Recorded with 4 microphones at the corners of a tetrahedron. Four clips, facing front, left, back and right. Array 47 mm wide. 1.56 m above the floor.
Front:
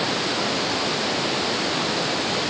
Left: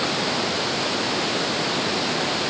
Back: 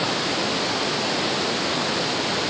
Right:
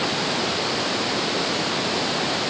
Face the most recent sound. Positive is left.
No sound to turn to.